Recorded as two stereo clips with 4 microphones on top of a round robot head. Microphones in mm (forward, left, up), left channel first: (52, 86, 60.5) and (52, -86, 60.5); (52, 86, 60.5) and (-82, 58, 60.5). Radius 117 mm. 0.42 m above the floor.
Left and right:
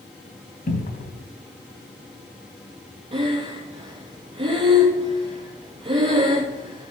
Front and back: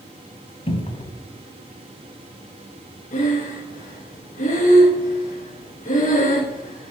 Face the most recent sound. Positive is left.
turn(degrees=-30)